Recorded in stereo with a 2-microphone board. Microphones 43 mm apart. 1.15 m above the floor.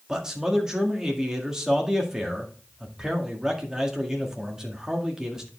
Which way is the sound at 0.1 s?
10° right (ahead or behind).